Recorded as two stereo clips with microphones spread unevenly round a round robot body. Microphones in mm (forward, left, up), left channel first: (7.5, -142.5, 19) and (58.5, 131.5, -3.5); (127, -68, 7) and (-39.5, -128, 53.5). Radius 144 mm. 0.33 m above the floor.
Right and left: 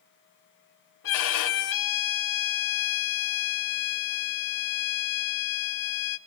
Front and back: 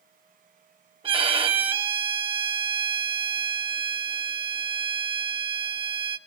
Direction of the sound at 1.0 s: 95° right.